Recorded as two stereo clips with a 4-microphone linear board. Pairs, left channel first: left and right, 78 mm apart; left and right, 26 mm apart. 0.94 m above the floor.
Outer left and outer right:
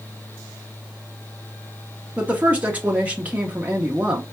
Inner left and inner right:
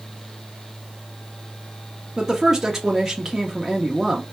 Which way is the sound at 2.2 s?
20° right (ahead or behind).